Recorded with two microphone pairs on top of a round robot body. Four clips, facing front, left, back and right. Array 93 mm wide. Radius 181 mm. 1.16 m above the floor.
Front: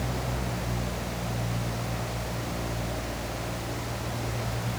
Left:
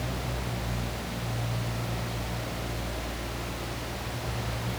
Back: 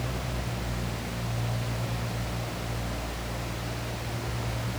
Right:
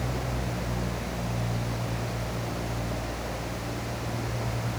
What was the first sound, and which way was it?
Only background noise.